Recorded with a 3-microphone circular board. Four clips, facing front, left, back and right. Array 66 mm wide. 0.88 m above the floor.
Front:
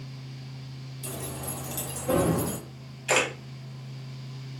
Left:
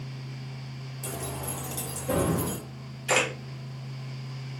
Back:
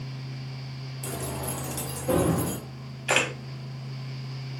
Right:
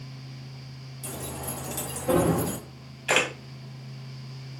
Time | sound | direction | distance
1.0 | keys jangling | 155° left | 0.6 m
3.1 | a camera shutter | 130° right | 0.8 m